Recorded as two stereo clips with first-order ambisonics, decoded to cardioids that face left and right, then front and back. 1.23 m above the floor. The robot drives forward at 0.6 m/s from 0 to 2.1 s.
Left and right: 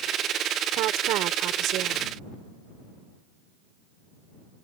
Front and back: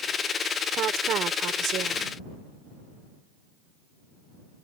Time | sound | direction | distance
0.7 | a woman speaking | 125° right | ?